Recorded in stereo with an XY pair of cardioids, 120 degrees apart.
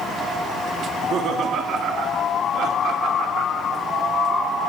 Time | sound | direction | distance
0.9 | laughter | 60° right | 2.5 m